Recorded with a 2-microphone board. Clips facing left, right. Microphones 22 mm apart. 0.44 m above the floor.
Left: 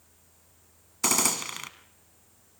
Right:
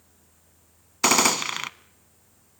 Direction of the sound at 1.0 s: 35° right (ahead or behind).